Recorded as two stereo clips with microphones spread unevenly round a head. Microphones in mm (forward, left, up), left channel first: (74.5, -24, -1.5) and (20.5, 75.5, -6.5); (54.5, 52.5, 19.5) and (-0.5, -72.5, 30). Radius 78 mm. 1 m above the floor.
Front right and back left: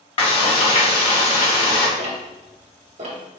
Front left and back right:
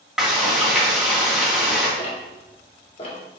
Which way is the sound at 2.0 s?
110° left.